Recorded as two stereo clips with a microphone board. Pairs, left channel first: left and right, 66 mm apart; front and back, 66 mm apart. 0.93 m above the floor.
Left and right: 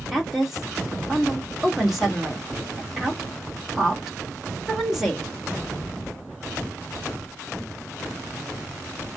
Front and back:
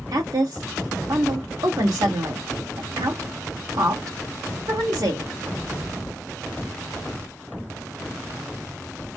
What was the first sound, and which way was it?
A woman speaking, 175° right.